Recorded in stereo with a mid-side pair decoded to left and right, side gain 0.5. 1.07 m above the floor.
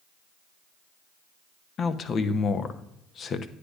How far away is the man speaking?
About 0.8 m.